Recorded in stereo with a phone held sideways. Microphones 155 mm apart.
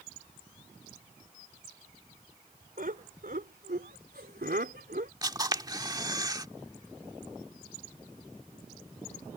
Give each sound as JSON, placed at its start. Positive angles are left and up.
{"t": 2.8, "sound": "laughter", "side_deg": -65}
{"t": 5.2, "sound": "a camera shutter", "side_deg": -25}